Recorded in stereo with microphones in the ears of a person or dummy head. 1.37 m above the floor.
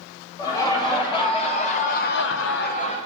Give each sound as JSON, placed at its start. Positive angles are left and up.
{"t": 0.4, "sound": "laughter", "side_deg": 10, "distance_m": 2.0}